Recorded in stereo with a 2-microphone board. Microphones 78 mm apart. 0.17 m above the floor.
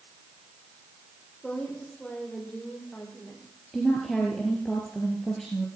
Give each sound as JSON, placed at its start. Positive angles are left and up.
{"t": 1.4, "sound": "a woman speaking", "side_deg": 10, "distance_m": 7.0}
{"t": 3.7, "sound": "a woman speaking", "side_deg": 5, "distance_m": 3.5}